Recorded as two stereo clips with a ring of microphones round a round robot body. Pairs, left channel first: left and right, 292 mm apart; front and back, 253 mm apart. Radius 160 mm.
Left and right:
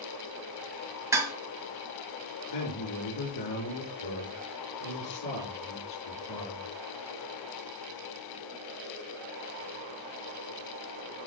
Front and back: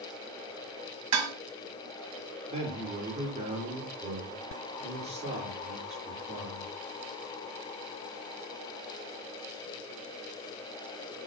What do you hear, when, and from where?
1.1 s dishes clattering: 170° right, 2 m
2.5 s a man speaking: 115° left, 6 m